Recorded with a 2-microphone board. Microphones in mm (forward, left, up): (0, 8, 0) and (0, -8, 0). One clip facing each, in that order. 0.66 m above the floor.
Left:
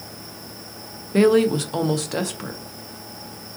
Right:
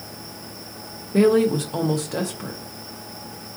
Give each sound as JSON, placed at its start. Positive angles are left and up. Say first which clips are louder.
{"t": 1.1, "sound": "a woman speaking", "louder": "left 1 dB", "side_deg": 30, "distance_m": 0.6}